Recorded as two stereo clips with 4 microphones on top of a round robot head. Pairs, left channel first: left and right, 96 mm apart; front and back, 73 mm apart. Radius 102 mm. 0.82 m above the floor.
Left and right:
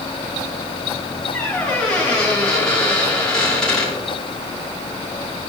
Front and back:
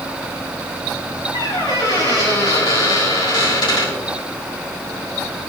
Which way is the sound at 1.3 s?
5° left.